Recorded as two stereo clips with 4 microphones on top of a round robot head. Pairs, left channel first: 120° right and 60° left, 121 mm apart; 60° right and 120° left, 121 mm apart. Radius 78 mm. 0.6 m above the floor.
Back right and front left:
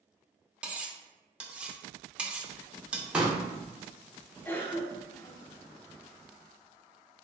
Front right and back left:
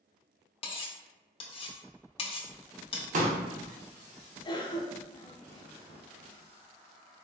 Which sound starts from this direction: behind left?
A pop, at 3.1 s.